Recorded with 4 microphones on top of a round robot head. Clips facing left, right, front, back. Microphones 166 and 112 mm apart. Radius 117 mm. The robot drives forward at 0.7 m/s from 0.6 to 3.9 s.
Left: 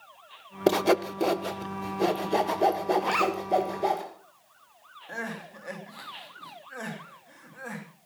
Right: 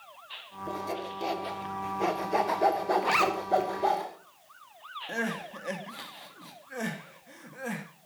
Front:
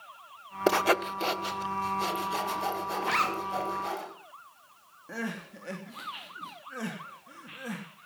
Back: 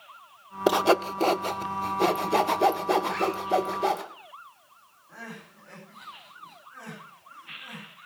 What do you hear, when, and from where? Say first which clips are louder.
0.7 s sawing: left 13 dB, back 4 dB; 100° left, 0.6 m; by 4.0 s 165° left, 2.5 m
3.0 s a zipper: left 1 dB, back 2 dB; 5° right, 3 m
5.1 s crying: right 4 dB, front 7 dB; 25° right, 3 m